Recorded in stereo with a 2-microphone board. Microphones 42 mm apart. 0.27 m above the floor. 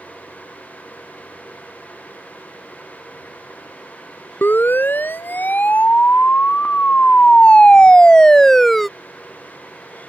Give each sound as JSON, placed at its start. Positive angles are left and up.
{"t": 4.4, "sound": "a siren", "side_deg": 60}